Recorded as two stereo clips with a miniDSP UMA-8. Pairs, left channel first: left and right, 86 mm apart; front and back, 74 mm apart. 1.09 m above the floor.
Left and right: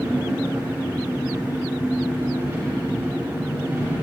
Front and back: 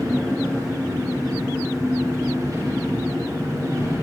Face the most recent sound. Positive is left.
turn(degrees=-140)